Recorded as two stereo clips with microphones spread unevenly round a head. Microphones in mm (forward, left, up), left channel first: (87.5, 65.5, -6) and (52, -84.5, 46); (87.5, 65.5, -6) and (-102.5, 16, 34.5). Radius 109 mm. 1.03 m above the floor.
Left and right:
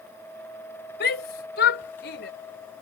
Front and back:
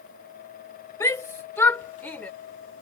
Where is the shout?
90° left; by 2.3 s 100° left.